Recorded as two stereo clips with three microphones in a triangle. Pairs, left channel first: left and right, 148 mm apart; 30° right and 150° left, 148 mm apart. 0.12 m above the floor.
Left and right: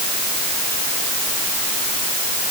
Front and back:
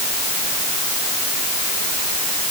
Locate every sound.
Only background noise.